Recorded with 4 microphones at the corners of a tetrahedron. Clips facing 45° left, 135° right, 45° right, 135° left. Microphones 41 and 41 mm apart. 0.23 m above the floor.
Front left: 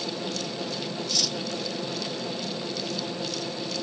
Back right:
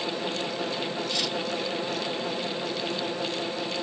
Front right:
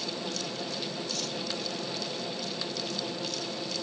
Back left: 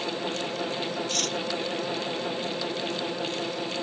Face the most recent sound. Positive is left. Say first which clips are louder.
# even, back left 6 dB
turn(degrees=165)